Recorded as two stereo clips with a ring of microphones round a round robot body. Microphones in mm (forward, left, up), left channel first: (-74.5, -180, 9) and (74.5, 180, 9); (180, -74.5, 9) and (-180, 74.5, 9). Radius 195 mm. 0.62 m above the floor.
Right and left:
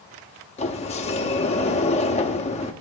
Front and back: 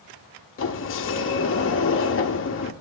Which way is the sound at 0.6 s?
50° right.